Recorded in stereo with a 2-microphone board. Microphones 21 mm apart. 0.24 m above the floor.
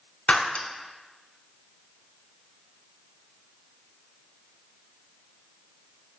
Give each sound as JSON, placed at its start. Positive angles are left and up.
{"t": 0.3, "sound": "breaking glass", "side_deg": 70, "distance_m": 0.7}